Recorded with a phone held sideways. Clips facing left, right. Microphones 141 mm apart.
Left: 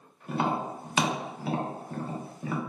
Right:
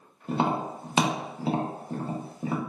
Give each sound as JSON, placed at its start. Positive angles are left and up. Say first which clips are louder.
{"t": 0.3, "sound": "tapping", "louder": "right 2 dB", "side_deg": -25, "distance_m": 0.6}